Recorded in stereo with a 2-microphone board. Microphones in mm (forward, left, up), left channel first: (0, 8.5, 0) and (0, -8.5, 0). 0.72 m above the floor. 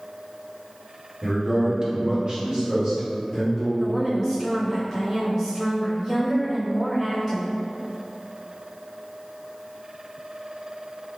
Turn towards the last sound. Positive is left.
turn(degrees=0)  # may be behind; listen again after turning